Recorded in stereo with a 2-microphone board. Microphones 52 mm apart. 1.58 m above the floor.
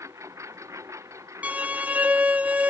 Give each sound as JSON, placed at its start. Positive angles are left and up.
{"t": 0.0, "sound": "a lawn mower", "side_deg": -85}
{"t": 1.4, "sound": "a violin", "side_deg": -25}